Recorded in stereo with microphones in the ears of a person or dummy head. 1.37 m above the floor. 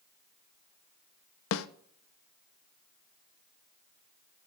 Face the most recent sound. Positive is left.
turn(degrees=75)  # may be behind; listen again after turning